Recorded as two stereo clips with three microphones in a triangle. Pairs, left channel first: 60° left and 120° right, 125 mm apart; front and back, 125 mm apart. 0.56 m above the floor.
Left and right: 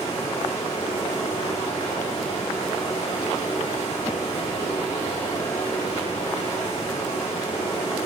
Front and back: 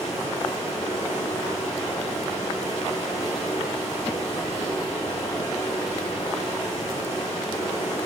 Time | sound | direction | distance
0.0 | running water | 60° left | 1.7 m